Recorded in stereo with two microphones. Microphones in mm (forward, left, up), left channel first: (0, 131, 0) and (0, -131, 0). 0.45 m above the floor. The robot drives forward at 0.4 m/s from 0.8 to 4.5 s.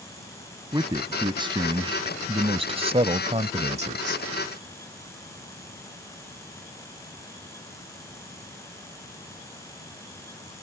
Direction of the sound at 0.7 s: 15° right (ahead or behind).